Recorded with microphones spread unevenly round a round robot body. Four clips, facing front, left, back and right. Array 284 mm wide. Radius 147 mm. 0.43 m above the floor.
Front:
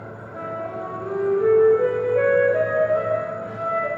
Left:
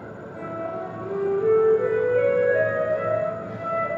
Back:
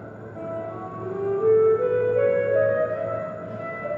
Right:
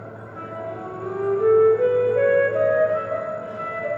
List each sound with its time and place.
0.3 s a flute: 35° right, 2 m